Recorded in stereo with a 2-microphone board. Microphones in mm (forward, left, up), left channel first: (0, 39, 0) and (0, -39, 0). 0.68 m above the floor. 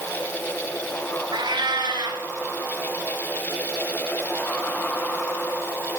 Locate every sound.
1.3 s a cat meowing: 70° right (ahead or behind), 1.7 m